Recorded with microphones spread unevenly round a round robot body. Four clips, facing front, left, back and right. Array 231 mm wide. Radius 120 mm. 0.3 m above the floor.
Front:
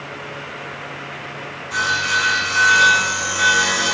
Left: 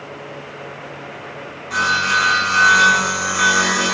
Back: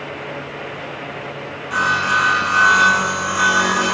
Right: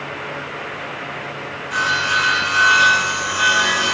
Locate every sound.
1.7 s sawing: 155° left, 1.0 m